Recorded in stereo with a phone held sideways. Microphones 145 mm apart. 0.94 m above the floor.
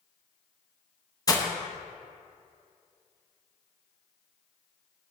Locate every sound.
1.3 s breaking glass: 25° left (ahead or behind), 0.7 m